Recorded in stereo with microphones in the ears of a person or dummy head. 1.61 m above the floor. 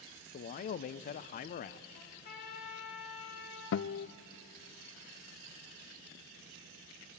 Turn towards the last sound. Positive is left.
turn(degrees=65)  # may be behind; listen again after turning